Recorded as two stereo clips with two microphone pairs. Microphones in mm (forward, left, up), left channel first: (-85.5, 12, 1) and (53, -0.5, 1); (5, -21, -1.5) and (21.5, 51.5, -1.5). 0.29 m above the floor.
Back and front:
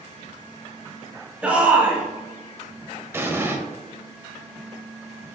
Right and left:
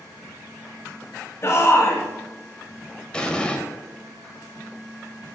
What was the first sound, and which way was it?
A shout, 80° right.